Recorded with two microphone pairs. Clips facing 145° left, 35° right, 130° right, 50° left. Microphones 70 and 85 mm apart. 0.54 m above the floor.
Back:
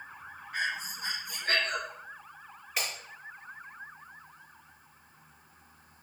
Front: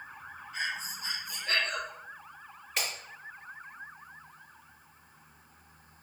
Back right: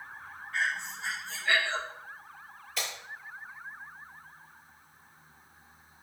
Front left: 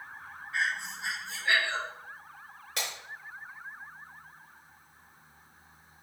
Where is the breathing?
125° left, 1.9 m.